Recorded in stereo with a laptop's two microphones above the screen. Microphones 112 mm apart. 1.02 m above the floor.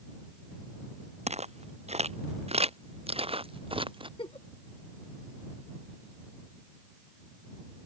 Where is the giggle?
50° left (ahead or behind).